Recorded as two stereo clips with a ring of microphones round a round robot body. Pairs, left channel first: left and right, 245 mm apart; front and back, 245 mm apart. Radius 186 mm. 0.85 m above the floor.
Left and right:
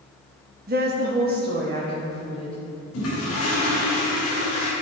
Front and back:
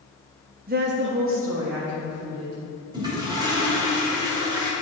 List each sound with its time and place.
0.7 s a woman speaking: 135° right, 0.8 m; by 2.5 s 150° right, 2 m
2.9 s a toilet flushing: 105° left, 2.5 m